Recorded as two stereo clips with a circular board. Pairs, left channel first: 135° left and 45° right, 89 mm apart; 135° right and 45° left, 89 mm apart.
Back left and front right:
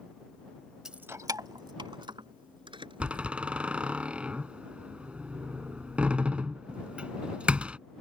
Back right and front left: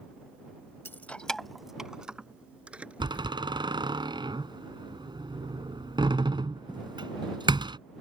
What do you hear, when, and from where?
0.8 s keys jangling: 120° right; by 3.2 s 30° right
3.0 s a door slam: 30° left